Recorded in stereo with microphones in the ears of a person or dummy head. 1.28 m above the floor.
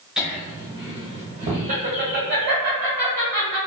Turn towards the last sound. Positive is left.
turn(degrees=-60)  # may be behind; listen again after turning